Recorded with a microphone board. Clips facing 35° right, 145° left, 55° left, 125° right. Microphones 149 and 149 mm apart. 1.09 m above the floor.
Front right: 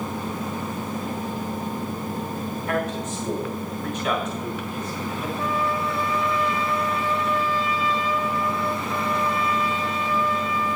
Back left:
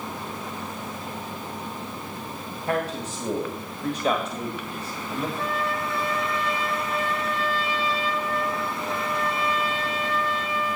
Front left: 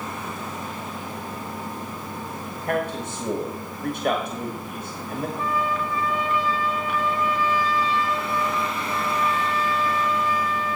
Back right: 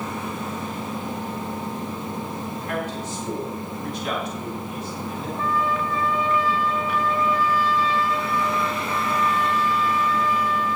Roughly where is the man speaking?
Left.